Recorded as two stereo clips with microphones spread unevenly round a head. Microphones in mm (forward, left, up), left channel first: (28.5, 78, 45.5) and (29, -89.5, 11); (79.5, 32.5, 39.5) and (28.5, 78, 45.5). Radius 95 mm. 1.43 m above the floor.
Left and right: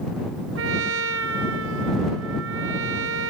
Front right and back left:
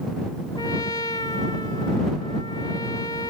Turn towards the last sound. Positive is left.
turn(degrees=-100)